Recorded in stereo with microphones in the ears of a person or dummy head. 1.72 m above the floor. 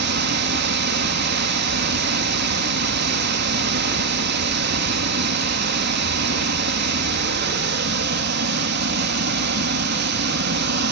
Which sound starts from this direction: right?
Running water, at 0.0 s.